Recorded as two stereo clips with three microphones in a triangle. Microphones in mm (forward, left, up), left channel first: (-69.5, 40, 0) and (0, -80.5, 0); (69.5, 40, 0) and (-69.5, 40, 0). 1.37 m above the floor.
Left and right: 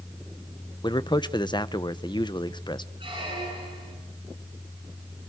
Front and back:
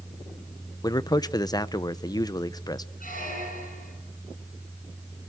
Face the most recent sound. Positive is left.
turn(degrees=-10)